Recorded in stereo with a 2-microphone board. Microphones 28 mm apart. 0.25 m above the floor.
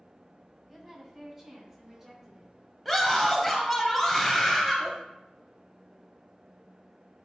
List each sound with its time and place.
0.7 s a woman speaking: 15° right (ahead or behind), 1.8 m; by 2.5 s 10° right (ahead or behind), 3.5 m
2.9 s a scream: centre (ahead or behind), 1.1 m